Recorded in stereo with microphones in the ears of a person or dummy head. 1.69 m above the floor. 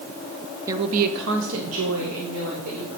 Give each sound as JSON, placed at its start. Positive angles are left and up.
{"t": 0.7, "sound": "a woman speaking", "side_deg": -15, "distance_m": 0.8}